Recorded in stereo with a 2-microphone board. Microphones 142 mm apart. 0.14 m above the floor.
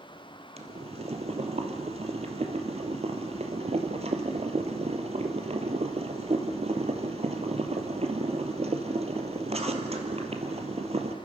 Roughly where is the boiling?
Right.